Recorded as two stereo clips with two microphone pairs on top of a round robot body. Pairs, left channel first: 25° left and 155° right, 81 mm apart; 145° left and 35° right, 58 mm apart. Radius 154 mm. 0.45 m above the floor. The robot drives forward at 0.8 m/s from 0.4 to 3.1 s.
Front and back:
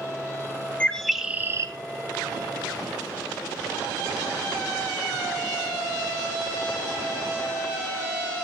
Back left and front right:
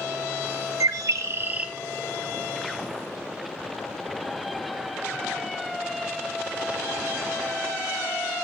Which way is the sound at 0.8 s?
50° right.